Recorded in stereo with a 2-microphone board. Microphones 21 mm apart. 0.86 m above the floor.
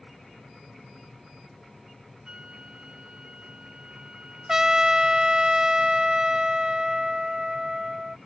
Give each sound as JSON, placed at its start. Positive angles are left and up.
{"t": 2.2, "sound": "a flute", "side_deg": -45}
{"t": 4.5, "sound": "a trumpet", "side_deg": -20}